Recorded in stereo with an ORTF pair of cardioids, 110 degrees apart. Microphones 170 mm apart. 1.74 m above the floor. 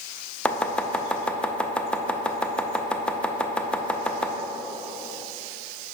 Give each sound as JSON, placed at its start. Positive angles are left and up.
{"t": 0.5, "sound": "chopping", "azimuth_deg": 5, "distance_m": 0.7}